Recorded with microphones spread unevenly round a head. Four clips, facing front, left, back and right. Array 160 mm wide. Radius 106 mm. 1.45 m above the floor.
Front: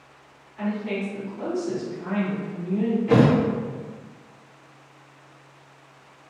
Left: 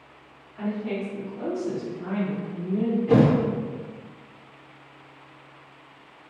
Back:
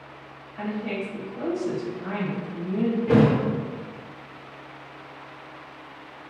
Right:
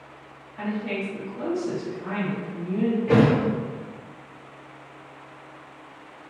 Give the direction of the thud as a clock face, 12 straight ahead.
6 o'clock.